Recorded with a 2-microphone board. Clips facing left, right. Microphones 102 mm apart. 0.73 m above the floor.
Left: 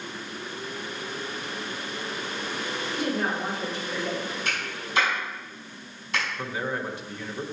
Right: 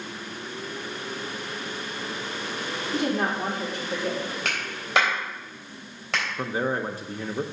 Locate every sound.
2.9 s a woman speaking: 60° right (ahead or behind), 2.5 m; by 4.3 s 50° right (ahead or behind), 3 m
4.5 s a clap: 75° right (ahead or behind), 3.5 m
6.4 s a man speaking: 35° right (ahead or behind), 0.6 m